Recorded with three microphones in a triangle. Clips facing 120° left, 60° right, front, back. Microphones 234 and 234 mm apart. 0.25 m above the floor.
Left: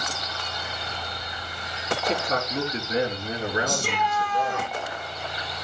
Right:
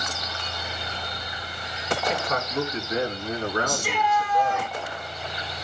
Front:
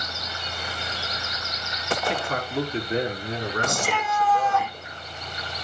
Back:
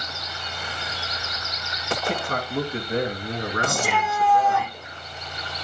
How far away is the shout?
About 8.5 m.